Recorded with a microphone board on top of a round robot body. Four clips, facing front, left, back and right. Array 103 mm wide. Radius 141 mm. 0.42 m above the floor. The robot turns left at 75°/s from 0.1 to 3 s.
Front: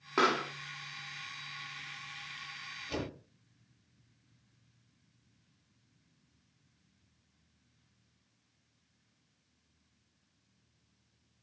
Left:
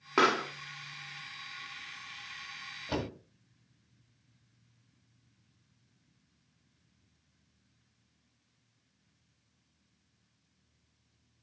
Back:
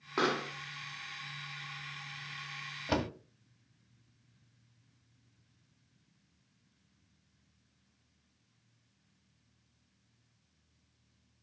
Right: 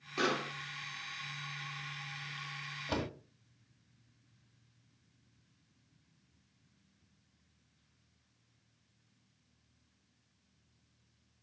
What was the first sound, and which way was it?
A pop, 80° left.